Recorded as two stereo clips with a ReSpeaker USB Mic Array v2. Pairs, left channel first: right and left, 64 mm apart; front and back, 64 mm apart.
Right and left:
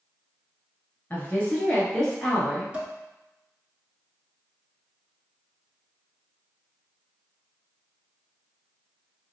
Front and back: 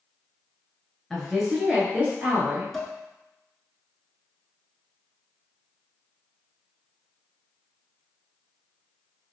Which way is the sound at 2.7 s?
80° left.